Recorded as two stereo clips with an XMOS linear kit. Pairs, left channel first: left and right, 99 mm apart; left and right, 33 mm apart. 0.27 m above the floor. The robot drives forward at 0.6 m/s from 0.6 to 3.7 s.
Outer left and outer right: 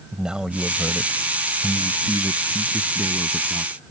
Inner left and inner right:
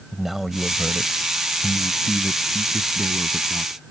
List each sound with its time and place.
0.1 s a man speaking: 10° right (ahead or behind); by 3.8 s 5° right (ahead or behind)